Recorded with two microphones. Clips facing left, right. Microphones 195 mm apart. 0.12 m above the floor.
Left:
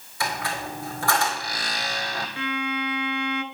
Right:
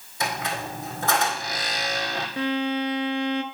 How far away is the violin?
About 0.5 m.